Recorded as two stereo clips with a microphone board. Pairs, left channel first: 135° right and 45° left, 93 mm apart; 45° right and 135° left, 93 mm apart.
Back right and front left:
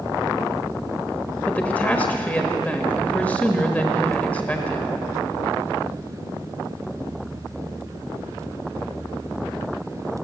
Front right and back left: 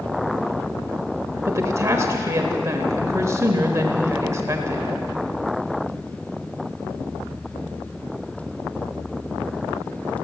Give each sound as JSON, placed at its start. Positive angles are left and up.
{"t": 1.4, "sound": "a woman speaking", "azimuth_deg": 165, "distance_m": 1.2}